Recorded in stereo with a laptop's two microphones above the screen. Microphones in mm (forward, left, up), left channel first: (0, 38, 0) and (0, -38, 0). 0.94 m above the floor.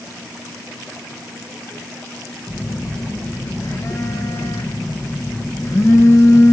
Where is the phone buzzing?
45° left (ahead or behind), 0.9 m.